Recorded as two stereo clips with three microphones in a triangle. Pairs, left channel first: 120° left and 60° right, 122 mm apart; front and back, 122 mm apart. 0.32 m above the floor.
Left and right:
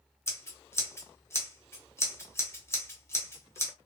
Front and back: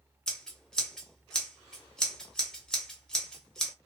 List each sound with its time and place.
0.3 s scissors: 80° left, 1.0 m